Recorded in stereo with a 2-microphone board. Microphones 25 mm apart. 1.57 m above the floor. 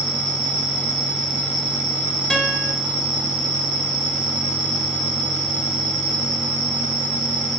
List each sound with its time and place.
0.0 s an insect: 25° right (ahead or behind), 0.9 m
2.3 s a guitar: 35° left (ahead or behind), 0.7 m